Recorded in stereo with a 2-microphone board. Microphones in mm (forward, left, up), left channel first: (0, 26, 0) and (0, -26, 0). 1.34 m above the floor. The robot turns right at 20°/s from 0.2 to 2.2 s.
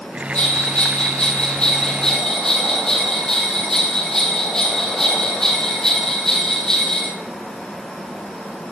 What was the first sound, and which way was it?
A bell, 135° left.